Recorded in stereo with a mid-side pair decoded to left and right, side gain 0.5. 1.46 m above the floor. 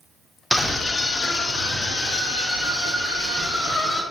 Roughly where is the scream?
Ahead.